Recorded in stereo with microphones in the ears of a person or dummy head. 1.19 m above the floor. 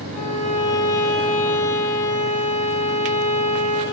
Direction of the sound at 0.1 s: 10° left (ahead or behind).